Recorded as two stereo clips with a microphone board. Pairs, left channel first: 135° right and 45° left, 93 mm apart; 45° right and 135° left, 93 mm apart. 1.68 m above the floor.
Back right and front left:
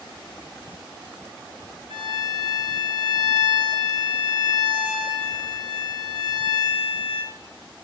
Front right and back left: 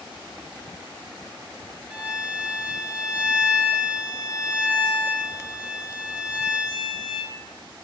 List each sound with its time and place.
1.9 s a violin: 55° left, 4 m